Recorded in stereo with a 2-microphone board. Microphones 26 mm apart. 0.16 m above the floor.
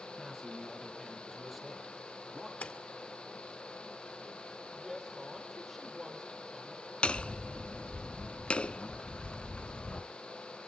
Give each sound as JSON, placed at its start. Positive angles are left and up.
{"t": 0.2, "sound": "a man speaking", "side_deg": -5, "distance_m": 6.5}
{"t": 2.6, "sound": "a splash", "side_deg": 55, "distance_m": 2.0}
{"t": 4.7, "sound": "a woman speaking", "side_deg": -5, "distance_m": 5.0}
{"t": 7.0, "sound": "hammering", "side_deg": 45, "distance_m": 0.7}